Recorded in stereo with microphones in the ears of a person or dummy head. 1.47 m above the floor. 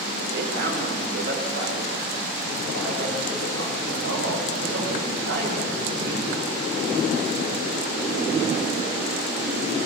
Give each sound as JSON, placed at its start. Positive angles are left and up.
{"t": 0.3, "sound": "a man speaking", "side_deg": -65, "distance_m": 4.5}